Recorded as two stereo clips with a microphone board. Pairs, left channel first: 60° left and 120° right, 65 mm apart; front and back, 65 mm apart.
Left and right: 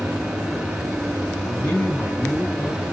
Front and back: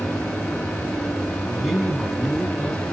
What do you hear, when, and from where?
1.4 s a man speaking: 115° left, 1.8 m; by 2.9 s 75° left, 2 m